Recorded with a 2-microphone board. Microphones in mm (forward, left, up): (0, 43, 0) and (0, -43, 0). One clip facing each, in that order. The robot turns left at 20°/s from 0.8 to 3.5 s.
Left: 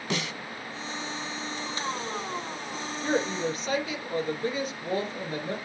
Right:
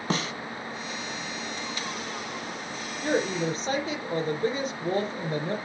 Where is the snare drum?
35° right (ahead or behind), 1.3 m.